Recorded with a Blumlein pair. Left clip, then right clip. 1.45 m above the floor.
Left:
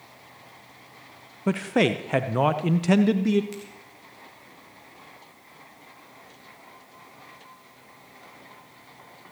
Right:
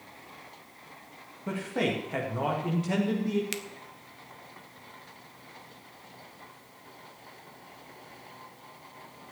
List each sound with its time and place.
1.5 s a man speaking: 30° left, 0.9 m
3.5 s a finger snap: 55° right, 1.1 m